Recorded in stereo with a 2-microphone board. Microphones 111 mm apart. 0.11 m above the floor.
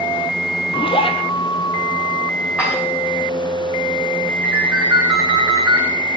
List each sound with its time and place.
0.7 s a zipper: 50° left (ahead or behind), 3.5 m
2.6 s dishes clattering: 10° right (ahead or behind), 7.5 m
4.4 s a ringtone: 20° right (ahead or behind), 6 m